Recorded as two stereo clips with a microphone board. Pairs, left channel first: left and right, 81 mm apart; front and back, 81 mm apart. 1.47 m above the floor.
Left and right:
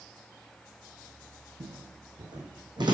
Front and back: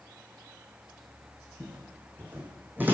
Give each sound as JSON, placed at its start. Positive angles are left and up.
{"t": 1.6, "sound": "footsteps", "azimuth_deg": -110, "distance_m": 6.5}